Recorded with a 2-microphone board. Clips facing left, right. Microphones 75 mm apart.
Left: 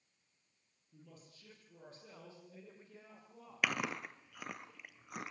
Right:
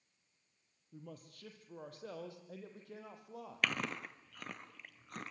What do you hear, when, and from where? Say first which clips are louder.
0.9 s a man speaking: right 7 dB; 55° right (ahead or behind), 6 m; by 3.7 s 75° right (ahead or behind), 8.5 m
3.6 s chewing: left 1 dB; 10° left (ahead or behind), 1.4 m